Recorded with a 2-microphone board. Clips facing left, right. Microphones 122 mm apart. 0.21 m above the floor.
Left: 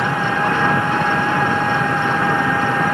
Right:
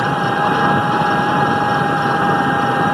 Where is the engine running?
15° right (ahead or behind).